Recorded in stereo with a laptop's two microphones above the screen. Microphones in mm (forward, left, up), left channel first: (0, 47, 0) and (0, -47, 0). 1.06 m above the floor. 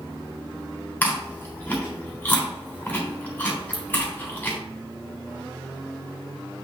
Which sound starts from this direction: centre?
Chewing, at 1.0 s.